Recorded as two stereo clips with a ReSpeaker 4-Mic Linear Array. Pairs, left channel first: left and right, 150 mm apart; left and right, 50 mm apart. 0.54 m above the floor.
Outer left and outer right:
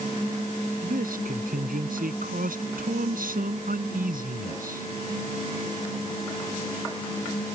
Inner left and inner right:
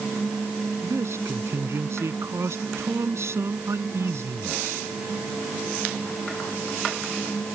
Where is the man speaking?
70° right (ahead or behind).